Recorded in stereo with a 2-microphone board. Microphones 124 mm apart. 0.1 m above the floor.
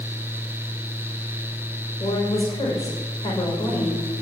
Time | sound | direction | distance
2.0 | a woman speaking | 60° left (ahead or behind) | 6 m